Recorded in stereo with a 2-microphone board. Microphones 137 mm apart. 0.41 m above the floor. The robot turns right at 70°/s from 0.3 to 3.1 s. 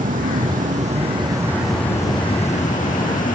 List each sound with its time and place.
0.0 s an insect: 100° right; by 3.4 s 100° left